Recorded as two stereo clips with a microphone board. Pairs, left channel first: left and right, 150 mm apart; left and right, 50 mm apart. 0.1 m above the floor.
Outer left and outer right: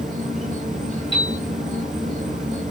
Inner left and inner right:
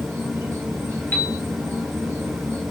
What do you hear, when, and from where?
0.0 s an insect: 60° right (ahead or behind), 0.8 m
1.1 s a piano: 35° left (ahead or behind), 0.7 m